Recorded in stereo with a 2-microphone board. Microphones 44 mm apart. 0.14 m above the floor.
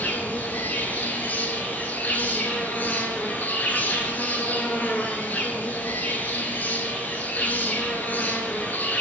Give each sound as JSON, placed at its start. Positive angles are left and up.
{"t": 0.0, "sound": "an insect", "side_deg": 40, "distance_m": 0.8}